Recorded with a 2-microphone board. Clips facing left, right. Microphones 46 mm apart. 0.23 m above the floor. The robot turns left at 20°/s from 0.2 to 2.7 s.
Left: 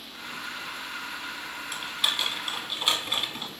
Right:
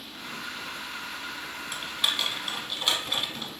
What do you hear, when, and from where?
1.7 s typing on a keyboard: 5° right (ahead or behind), 0.7 m; by 3.5 s 15° left (ahead or behind), 0.7 m